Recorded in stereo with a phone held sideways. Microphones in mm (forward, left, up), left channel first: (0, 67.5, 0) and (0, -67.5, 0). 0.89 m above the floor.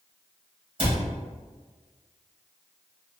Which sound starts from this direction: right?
A cupboard door, at 0.8 s.